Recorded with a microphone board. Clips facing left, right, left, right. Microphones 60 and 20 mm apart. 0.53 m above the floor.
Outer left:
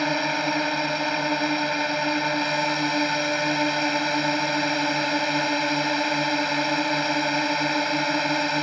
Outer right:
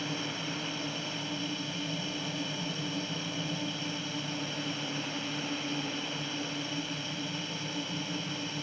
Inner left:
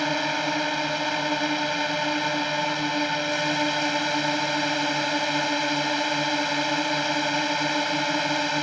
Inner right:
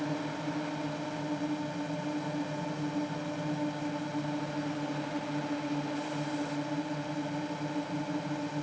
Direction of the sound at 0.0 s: 65° left (ahead or behind).